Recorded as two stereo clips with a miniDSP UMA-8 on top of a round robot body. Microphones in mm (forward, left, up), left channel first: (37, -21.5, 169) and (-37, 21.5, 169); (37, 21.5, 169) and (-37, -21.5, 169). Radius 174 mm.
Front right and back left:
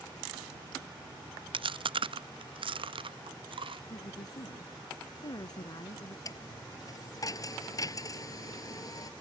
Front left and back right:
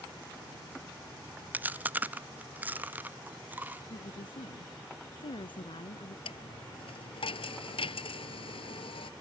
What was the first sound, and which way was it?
Chewing, 140° left.